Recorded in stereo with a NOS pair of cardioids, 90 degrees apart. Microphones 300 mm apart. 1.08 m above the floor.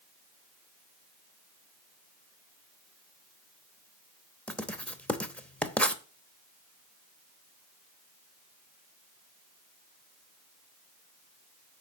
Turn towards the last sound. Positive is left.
turn(degrees=5)